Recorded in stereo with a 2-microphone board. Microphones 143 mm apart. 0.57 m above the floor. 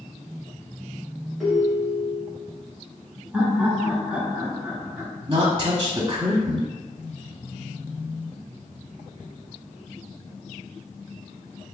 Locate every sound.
1.4 s a ringtone: centre (ahead or behind), 1.6 m
3.3 s laughter: 10° right (ahead or behind), 1.2 m
5.3 s a woman speaking: 35° right (ahead or behind), 0.9 m